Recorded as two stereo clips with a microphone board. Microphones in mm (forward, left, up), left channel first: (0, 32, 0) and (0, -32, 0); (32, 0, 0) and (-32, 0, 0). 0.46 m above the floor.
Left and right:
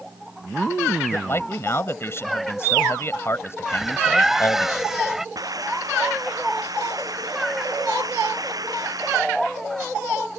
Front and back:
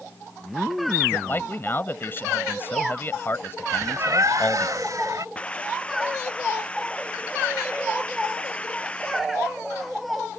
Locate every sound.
1.1 s a man speaking: 50° left
3.7 s a bird: 175° right
5.3 s a hiss: 75° right